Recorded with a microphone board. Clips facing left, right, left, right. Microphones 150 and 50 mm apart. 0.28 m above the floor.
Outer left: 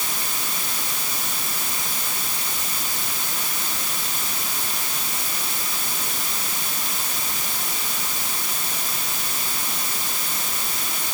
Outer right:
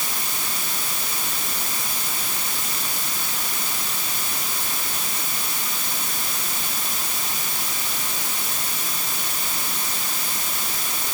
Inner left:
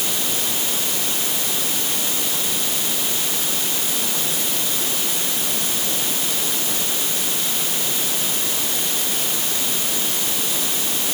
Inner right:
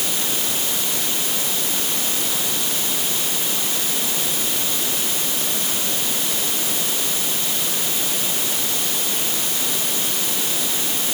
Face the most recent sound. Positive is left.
No sound to turn to.